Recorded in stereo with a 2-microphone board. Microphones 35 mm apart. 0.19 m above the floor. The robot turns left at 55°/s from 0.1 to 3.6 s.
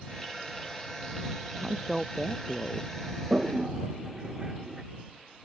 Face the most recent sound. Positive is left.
turn(degrees=-10)  # may be behind; listen again after turning